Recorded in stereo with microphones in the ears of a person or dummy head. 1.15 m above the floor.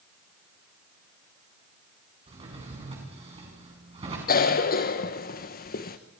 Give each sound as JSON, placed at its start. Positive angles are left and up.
{"t": 2.3, "sound": "a drawer", "side_deg": -25, "distance_m": 6.0}
{"t": 4.3, "sound": "a cough", "side_deg": 50, "distance_m": 1.1}